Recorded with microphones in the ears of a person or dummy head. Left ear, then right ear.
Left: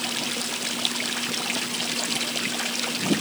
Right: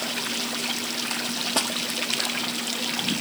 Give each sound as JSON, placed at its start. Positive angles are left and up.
{"t": 1.6, "sound": "a snare drum", "side_deg": -40}